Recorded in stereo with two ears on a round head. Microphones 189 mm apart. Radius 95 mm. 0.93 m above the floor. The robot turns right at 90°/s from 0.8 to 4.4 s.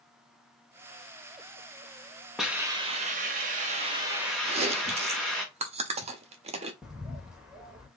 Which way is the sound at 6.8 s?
Centre (ahead or behind).